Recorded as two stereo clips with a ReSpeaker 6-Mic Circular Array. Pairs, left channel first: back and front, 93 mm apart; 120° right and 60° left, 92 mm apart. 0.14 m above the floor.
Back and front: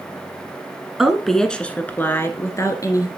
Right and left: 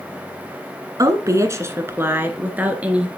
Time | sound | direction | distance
1.0 | a woman speaking | 85° left | 1.3 m